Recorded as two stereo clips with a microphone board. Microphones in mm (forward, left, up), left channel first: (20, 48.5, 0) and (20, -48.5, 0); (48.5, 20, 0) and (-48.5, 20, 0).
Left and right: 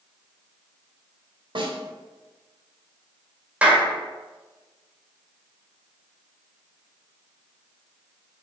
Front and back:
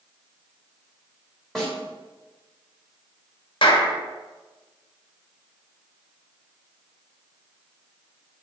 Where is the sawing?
No sawing in this recording.